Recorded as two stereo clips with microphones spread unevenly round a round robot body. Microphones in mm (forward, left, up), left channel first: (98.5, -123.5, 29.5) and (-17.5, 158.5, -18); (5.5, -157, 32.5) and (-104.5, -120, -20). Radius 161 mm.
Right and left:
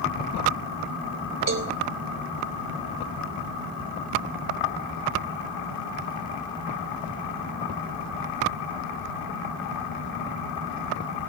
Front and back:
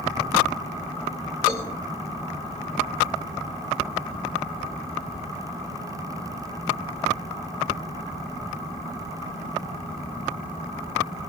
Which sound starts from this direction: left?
A cowbell, at 1.5 s.